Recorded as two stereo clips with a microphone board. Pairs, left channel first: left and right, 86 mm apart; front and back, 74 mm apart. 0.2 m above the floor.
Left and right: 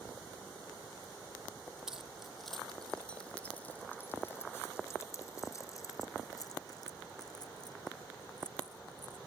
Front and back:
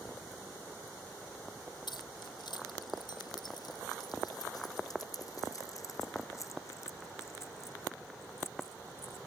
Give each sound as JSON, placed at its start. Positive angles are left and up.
{"t": 1.9, "sound": "keys jangling", "azimuth_deg": -5}